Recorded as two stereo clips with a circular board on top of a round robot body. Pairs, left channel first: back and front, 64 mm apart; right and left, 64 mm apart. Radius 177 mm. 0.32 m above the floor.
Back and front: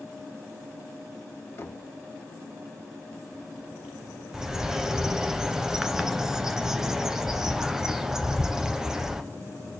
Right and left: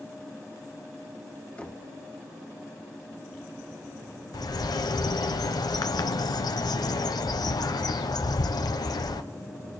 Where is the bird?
80° right, 0.5 m.